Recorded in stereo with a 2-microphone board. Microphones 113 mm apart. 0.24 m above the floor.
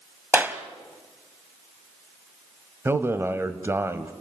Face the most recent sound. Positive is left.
turn(degrees=-20)  # may be behind; listen again after turning